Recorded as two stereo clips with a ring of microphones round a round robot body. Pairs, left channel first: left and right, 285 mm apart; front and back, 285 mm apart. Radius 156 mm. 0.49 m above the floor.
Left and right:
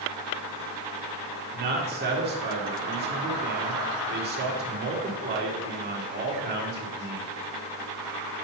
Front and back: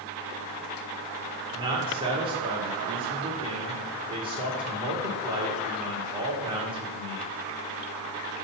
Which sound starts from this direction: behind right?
A man speaking, at 1.5 s.